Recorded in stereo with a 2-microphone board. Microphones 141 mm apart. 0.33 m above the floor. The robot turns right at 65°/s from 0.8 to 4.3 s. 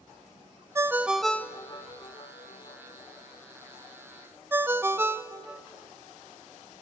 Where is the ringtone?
20° right (ahead or behind), 0.8 m; by 5.6 s 15° right (ahead or behind), 0.8 m.